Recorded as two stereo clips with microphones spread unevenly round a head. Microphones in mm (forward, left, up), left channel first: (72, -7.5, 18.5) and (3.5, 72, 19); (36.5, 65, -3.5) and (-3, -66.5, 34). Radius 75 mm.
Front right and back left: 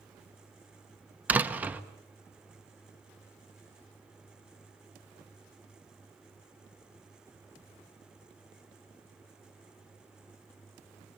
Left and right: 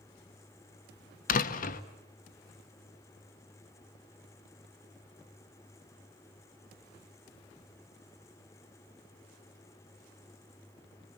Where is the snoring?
No snoring in this recording.